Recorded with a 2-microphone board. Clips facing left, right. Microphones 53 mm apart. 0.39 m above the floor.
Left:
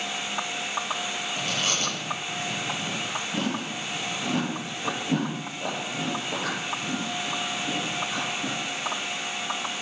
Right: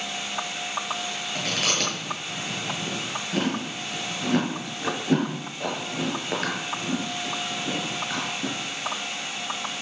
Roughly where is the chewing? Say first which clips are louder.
Right 3 dB; right.